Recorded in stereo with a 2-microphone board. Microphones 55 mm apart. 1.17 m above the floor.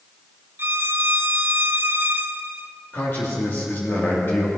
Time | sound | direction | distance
0.6 | a violin | 45° right (ahead or behind) | 0.5 m
2.9 | a man speaking | 45° left (ahead or behind) | 3 m